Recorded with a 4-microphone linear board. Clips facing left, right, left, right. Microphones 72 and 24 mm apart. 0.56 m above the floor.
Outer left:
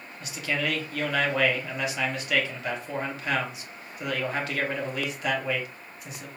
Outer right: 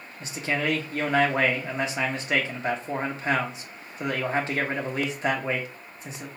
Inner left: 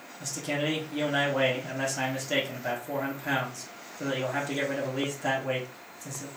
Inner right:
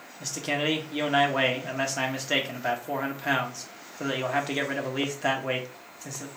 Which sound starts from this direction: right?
A man speaking, at 0.2 s.